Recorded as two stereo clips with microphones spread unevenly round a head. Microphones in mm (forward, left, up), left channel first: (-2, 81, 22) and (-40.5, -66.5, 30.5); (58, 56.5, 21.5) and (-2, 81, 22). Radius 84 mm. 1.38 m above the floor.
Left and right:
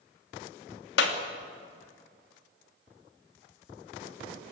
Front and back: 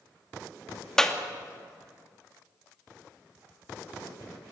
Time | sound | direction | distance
1.0 | a clap | 60° left | 2.5 m